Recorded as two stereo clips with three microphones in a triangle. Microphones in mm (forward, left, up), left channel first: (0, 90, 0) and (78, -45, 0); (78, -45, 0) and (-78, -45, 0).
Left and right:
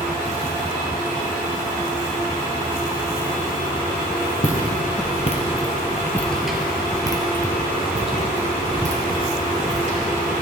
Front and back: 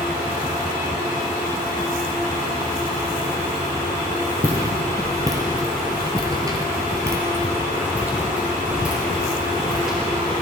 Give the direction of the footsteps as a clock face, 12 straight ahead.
8 o'clock.